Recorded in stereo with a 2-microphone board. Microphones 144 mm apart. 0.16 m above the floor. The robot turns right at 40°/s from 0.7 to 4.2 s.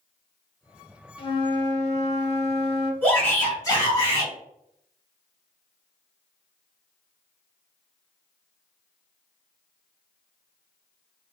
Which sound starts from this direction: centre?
A shout, at 3.0 s.